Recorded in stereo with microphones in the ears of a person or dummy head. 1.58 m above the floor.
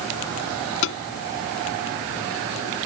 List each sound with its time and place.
0.8 s tapping: 70° left (ahead or behind)